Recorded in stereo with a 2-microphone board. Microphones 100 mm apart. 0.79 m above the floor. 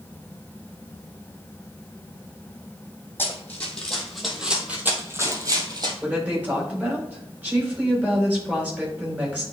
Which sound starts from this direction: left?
Running footsteps, at 3.2 s.